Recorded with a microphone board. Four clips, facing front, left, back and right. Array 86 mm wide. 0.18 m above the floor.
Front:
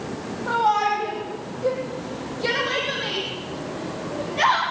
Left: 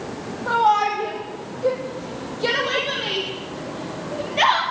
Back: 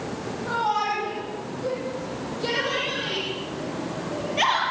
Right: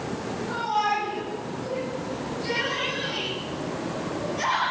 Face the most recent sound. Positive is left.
turn(degrees=110)